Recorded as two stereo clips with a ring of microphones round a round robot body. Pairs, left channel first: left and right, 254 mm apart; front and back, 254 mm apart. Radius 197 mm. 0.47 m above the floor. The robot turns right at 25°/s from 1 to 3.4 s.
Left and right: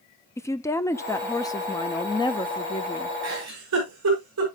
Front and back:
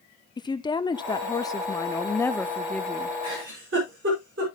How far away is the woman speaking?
About 0.9 m.